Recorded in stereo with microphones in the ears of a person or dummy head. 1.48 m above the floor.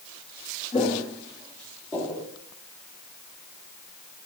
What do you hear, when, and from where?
0.7 s footsteps: 30° left (ahead or behind), 2.5 m; by 2.3 s 10° left (ahead or behind), 2 m